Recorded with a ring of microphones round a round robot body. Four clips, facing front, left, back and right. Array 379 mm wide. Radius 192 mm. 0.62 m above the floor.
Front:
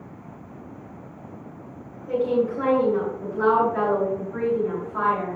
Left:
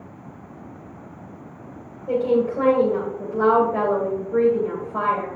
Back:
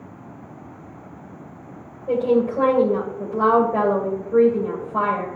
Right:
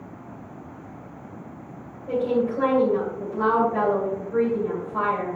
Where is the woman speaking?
170° left, 2.5 m.